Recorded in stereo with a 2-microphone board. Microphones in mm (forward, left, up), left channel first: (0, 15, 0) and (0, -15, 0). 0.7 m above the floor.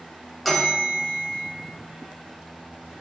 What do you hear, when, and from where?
0.5 s a bell: centre (ahead or behind), 1.3 m